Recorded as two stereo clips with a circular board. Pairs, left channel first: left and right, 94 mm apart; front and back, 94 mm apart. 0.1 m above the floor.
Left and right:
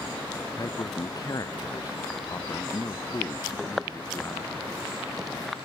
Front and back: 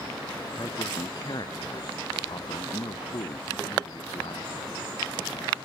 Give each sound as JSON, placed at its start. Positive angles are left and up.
{"t": 0.6, "sound": "a man speaking", "azimuth_deg": 45}